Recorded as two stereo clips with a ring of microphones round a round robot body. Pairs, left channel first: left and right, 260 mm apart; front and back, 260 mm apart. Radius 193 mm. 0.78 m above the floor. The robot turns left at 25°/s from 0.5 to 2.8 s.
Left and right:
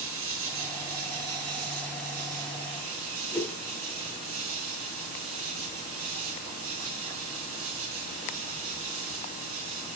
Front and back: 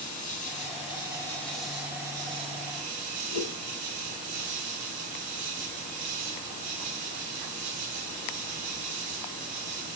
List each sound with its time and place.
0.0 s an insect: 60° right, 2.5 m; by 10.0 s 120° right, 2.5 m
3.3 s a whoosh: 5° left, 2.5 m